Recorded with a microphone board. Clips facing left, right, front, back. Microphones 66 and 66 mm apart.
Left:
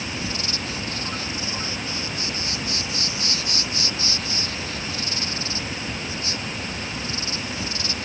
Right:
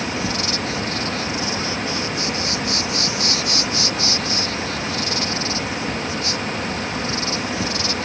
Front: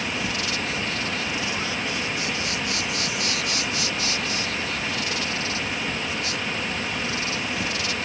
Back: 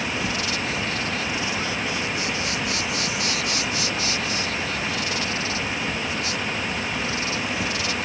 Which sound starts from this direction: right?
An insect, at 0.0 s.